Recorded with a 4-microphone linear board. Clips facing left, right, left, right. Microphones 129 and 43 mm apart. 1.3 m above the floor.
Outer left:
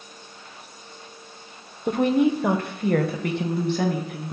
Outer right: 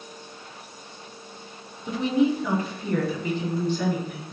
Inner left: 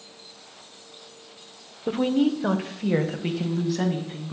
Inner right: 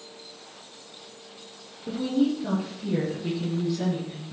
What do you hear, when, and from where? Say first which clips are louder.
1.9 s a woman speaking: outer left 3 dB, inner left 3 dB; 50° left (ahead or behind), 0.7 m; by 4.3 s 60° left (ahead or behind), 2.0 m